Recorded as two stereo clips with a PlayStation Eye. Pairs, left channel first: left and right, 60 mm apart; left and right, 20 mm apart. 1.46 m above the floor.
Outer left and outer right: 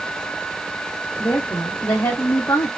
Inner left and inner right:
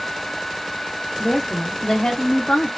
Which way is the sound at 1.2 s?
75° left (ahead or behind).